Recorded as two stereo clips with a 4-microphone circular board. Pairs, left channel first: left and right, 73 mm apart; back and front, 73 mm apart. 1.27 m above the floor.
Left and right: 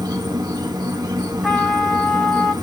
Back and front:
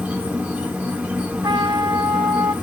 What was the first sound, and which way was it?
An insect, 70° right.